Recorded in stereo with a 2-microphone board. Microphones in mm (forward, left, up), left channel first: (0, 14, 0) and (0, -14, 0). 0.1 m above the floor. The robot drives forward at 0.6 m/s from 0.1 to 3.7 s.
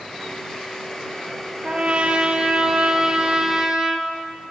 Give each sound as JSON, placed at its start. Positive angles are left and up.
{"t": 1.6, "sound": "a trumpet", "side_deg": -45, "distance_m": 1.2}